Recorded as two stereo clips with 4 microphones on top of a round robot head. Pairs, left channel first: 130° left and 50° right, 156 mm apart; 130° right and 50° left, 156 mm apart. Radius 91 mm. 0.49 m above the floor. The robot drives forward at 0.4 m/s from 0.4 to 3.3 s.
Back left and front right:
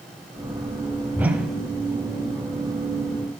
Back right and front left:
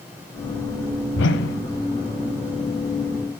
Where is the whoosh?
130° right, 0.8 m; by 1.6 s 135° right, 1.0 m.